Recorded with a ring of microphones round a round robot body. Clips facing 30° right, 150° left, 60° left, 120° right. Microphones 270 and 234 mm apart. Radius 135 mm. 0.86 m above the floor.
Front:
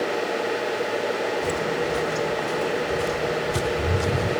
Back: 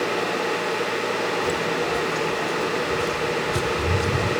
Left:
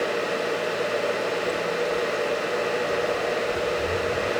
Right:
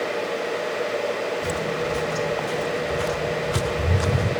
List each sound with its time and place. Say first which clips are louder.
1.4 s footsteps: even, even; 115° right; by 4.4 s 120° right